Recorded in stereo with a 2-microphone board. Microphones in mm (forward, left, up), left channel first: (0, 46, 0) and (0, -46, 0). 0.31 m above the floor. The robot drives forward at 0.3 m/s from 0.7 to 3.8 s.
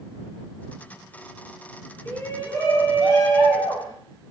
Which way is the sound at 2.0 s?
15° left (ahead or behind).